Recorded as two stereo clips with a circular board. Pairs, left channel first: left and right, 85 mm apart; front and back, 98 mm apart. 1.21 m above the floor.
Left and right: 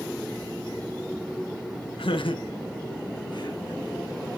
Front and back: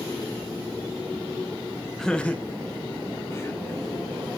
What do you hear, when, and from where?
2.0 s laughter: 85° left, 0.9 m; by 3.9 s 60° left, 2.5 m